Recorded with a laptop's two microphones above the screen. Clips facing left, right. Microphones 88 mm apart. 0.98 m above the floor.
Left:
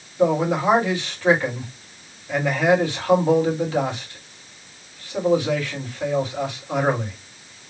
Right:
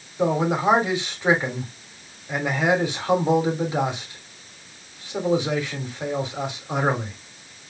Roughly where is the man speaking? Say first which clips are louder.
Left 2 dB; centre.